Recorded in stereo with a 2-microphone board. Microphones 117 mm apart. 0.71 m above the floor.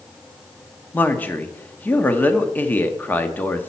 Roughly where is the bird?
I don't hear a bird.